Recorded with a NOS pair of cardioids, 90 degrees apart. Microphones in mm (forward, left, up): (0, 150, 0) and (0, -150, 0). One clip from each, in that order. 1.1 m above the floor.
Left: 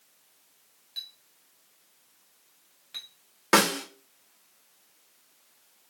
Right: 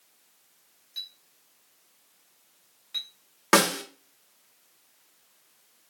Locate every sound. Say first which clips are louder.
1.0 s a clink: right 1 dB; 5° left, 1.8 m
3.5 s a snare drum: right 1 dB; 20° right, 1.4 m